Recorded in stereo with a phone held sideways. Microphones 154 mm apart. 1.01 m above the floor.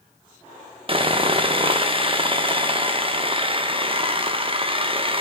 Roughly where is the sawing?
Right.